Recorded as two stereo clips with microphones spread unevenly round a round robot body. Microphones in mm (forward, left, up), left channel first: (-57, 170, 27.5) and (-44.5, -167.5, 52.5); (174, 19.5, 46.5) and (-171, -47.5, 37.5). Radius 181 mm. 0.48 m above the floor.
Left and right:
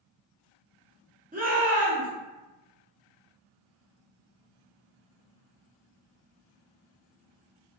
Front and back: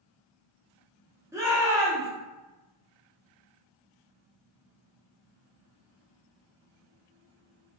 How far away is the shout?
About 0.8 m.